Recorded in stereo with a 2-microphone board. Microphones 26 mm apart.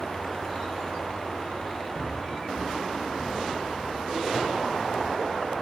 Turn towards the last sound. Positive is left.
turn(degrees=-75)  # may be behind; listen again after turning